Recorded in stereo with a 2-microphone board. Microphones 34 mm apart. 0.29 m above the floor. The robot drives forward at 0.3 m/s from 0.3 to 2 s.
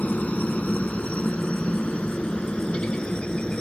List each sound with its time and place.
0.0 s a helicopter: 40° left (ahead or behind); by 3.6 s 25° left (ahead or behind)